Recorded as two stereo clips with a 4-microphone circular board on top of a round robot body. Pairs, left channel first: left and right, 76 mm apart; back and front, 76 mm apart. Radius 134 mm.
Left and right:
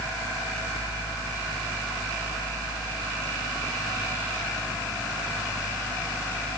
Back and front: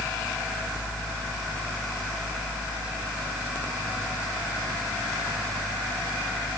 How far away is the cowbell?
No cowbell in this recording.